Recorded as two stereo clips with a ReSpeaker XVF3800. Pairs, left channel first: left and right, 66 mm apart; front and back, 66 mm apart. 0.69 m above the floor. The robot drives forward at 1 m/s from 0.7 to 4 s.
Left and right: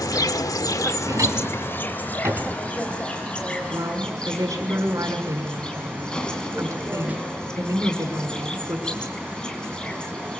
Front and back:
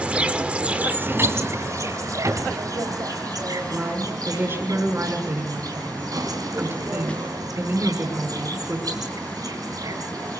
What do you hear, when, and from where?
0.0 s an insect: 110° left, 1.1 m; by 10.4 s 165° left, 4 m
1.0 s a drawer: 120° right, 2.5 m; by 2.6 s 145° right, 3.5 m
3.7 s a woman speaking: 125° right, 6 m